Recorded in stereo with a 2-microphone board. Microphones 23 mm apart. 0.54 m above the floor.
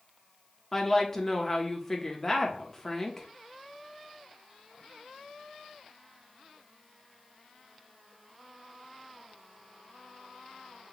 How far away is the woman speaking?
About 0.7 m.